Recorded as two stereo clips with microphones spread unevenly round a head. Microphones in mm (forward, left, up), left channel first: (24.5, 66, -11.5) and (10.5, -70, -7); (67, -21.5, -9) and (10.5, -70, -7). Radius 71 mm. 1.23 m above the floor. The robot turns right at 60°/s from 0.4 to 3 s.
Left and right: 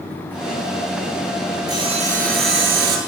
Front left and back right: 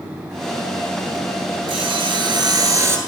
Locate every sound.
1.7 s sawing: 160° right, 8.5 m; by 3.0 s 85° right, 8.5 m